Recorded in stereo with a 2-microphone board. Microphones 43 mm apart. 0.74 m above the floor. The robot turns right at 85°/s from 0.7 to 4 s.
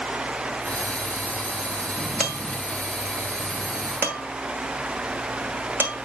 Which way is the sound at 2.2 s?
25° left (ahead or behind).